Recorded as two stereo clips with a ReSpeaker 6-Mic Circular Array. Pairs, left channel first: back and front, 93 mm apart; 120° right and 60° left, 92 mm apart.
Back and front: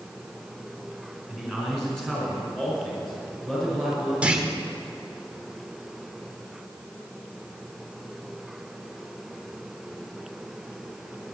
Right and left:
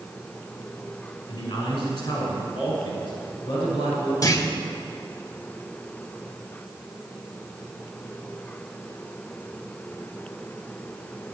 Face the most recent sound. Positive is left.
turn(degrees=-75)